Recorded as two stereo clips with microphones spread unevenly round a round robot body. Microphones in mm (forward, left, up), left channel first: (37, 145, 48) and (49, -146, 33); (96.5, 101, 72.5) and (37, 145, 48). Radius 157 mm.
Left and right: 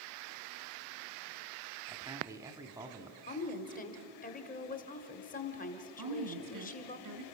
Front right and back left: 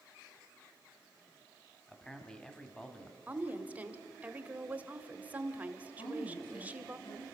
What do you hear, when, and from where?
1.9 s a man speaking: 145° right, 1.3 m
3.3 s a woman speaking: 140° left, 1.3 m
6.0 s a woman speaking: 75° right, 3.5 m